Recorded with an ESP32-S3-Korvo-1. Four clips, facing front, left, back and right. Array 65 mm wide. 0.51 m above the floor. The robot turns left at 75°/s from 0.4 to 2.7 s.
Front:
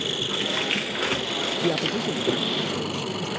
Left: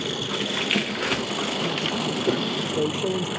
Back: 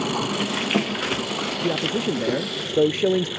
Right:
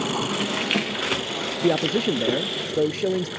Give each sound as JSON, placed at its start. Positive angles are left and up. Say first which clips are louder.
{"t": 0.0, "sound": "an engine running", "louder": "right 3 dB, back 5 dB", "azimuth_deg": -145}
{"t": 1.6, "sound": "a man speaking", "louder": "right 5 dB, back 1 dB", "azimuth_deg": -85}